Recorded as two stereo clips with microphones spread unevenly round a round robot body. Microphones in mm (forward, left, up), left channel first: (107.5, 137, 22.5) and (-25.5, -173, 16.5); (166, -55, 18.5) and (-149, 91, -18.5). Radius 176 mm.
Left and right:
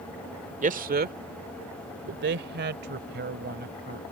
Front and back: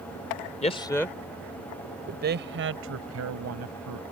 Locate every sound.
0.6 s a man speaking: 85° right; by 4.0 s 170° right